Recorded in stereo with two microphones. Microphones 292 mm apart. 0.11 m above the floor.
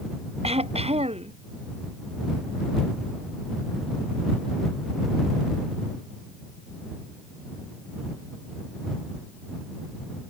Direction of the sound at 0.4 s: 20° right (ahead or behind).